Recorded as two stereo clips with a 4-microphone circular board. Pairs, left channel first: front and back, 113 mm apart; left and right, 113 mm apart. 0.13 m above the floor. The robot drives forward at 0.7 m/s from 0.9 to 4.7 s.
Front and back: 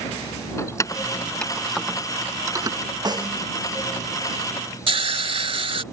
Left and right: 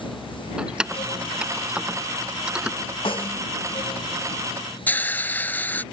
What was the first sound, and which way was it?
Keys jangling, 15° right.